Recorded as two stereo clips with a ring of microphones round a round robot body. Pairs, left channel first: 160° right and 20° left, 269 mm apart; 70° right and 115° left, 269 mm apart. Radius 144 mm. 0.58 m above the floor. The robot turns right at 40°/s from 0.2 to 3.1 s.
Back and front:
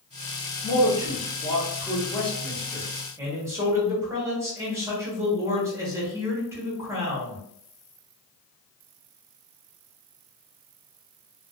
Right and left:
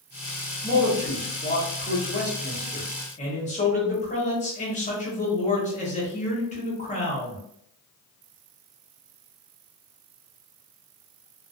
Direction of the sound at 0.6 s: 145° right.